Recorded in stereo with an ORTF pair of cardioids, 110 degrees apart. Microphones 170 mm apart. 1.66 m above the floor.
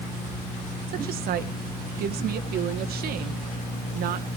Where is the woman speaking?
65° right, 1.5 m.